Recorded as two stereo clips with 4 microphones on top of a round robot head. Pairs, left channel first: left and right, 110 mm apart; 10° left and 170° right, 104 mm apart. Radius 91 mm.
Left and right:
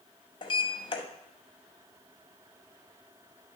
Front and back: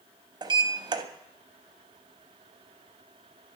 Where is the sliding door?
140° left, 0.9 m.